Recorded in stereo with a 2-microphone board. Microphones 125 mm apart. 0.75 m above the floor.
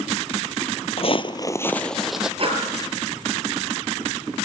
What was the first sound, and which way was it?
Footsteps, 55° left (ahead or behind).